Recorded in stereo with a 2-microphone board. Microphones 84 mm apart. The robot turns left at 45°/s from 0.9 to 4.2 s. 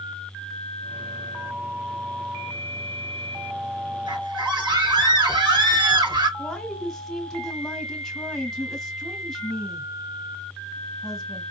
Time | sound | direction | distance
4.1 | a scream | 70° right (ahead or behind) | 3.5 m
6.4 | a woman speaking | 5° left (ahead or behind) | 1.3 m